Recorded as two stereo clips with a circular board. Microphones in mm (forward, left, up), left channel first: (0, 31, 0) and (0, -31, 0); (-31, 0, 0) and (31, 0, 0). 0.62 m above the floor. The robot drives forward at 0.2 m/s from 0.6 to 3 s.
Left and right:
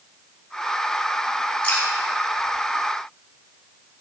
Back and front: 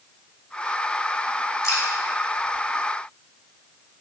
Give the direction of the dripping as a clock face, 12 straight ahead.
7 o'clock.